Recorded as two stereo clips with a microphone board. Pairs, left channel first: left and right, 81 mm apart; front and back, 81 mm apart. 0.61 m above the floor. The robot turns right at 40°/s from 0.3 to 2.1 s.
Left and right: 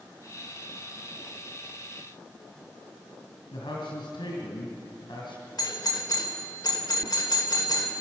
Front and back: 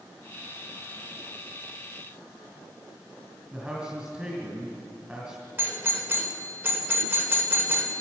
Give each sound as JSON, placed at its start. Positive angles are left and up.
{"t": 3.5, "sound": "a man speaking", "azimuth_deg": 105, "distance_m": 4.0}
{"t": 5.6, "sound": "a doorbell", "azimuth_deg": 120, "distance_m": 3.0}